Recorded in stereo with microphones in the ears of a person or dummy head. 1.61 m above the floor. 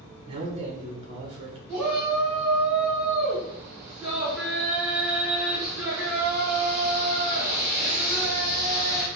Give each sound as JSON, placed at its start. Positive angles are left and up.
{"t": 0.3, "sound": "a man speaking", "side_deg": -40, "distance_m": 1.1}
{"t": 1.7, "sound": "a shout", "side_deg": -10, "distance_m": 1.6}